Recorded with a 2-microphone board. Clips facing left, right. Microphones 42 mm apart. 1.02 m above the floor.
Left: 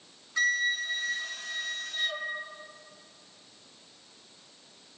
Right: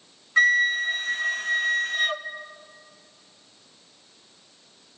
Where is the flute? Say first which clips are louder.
Right 8 dB; 50° right (ahead or behind), 1.0 m.